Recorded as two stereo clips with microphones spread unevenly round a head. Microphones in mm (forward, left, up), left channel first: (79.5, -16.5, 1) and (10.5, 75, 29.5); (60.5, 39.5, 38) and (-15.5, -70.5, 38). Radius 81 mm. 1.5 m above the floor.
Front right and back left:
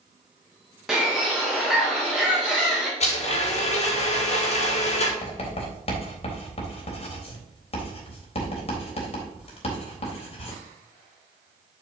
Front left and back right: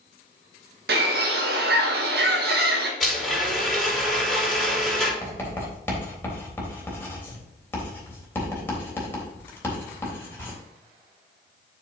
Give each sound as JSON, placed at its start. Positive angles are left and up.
{"t": 0.9, "sound": "a bird", "azimuth_deg": -150, "distance_m": 1.2}
{"t": 3.0, "sound": "a blender", "azimuth_deg": -35, "distance_m": 4.5}
{"t": 5.2, "sound": "writing", "azimuth_deg": -20, "distance_m": 3.5}